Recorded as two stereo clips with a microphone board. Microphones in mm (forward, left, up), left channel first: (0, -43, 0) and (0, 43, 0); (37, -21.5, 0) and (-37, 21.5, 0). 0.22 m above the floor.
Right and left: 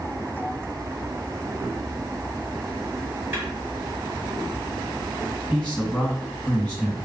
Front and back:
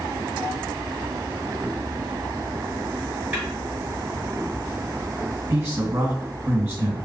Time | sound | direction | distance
3.3 | a snare drum | 115° left | 1.7 m
5.5 | a man speaking | 165° right | 2.0 m